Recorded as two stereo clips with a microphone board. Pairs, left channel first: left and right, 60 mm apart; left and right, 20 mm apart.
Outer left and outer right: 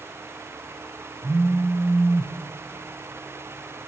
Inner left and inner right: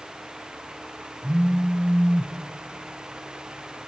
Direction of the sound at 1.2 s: 60° right (ahead or behind).